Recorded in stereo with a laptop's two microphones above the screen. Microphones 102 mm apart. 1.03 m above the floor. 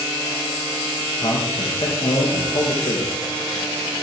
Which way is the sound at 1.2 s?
55° left (ahead or behind).